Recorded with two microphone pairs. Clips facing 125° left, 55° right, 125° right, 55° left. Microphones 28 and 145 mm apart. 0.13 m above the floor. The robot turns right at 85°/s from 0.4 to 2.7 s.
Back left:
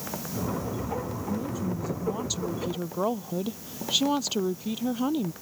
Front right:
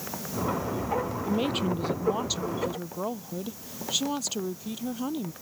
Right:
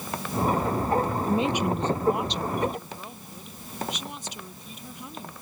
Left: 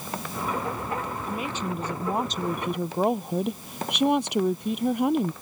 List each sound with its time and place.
1.2 s a woman speaking: 75° right; by 5.3 s 50° left